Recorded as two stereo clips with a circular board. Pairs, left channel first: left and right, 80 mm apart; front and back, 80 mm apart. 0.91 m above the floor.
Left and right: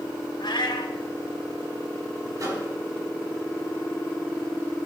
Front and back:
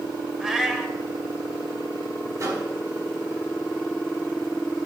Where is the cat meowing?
100° left, 1.5 m.